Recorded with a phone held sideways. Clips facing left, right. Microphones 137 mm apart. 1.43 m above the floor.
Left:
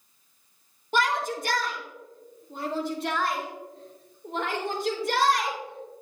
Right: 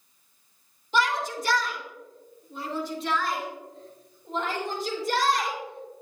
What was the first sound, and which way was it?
A shout, 55° left (ahead or behind).